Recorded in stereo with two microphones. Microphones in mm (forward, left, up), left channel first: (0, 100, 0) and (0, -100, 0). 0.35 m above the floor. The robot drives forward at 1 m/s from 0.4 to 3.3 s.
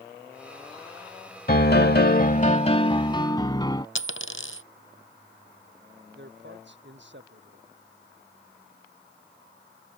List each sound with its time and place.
1.5 s a piano: 50° left (ahead or behind); by 3.9 s 20° left (ahead or behind)
4.0 s a dropped coin: 80° left
6.2 s a man speaking: 65° right (ahead or behind)